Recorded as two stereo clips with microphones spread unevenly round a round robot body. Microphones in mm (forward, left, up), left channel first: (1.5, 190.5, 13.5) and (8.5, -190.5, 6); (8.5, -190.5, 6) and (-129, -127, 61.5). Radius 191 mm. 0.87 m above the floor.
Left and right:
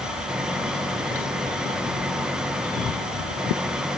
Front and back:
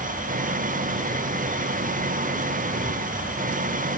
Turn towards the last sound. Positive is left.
turn(degrees=-175)